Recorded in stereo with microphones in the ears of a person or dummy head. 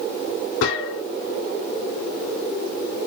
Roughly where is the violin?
No violin in this recording.